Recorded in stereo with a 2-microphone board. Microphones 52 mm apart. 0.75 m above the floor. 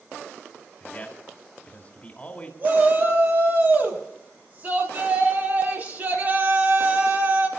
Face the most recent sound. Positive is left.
turn(degrees=-35)  # may be behind; listen again after turning